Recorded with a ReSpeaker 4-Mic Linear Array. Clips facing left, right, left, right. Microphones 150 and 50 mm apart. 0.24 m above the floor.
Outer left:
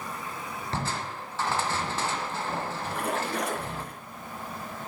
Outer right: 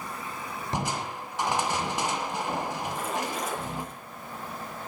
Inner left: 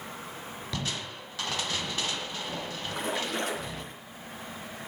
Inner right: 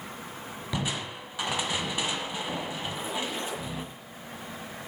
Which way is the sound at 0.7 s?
15° right (ahead or behind).